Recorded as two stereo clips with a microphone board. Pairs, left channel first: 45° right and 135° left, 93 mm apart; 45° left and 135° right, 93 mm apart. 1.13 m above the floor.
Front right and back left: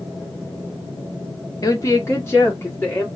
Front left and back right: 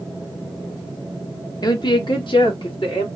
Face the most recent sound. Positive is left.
turn(degrees=20)